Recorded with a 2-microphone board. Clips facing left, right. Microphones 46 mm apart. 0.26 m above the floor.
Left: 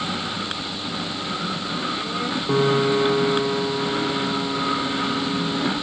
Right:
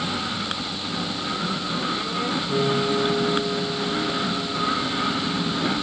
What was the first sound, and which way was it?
A piano, 65° left (ahead or behind).